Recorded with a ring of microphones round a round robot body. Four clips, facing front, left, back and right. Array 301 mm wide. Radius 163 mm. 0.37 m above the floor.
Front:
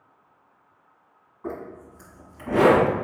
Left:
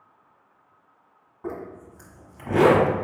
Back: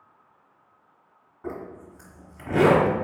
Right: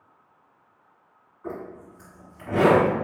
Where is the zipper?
120° left, 1.4 m.